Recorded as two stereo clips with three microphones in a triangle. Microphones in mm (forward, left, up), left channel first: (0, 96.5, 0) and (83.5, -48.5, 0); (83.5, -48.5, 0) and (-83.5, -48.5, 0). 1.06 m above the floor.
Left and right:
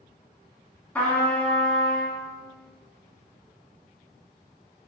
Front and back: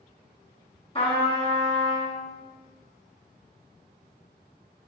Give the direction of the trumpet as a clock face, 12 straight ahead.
11 o'clock.